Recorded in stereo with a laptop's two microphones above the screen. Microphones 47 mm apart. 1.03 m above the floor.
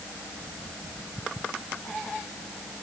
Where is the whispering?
I don't hear whispering.